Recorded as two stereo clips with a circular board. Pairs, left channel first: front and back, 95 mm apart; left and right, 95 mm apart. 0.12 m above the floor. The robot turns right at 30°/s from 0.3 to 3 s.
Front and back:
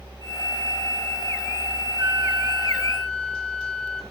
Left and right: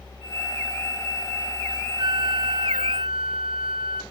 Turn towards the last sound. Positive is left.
turn(degrees=-80)